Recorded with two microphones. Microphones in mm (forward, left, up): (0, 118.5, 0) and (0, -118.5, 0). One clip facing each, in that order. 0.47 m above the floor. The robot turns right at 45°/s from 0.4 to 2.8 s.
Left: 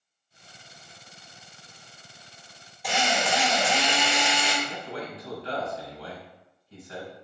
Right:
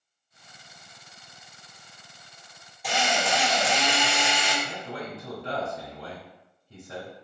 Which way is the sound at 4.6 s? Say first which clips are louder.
Even; 50° right (ahead or behind).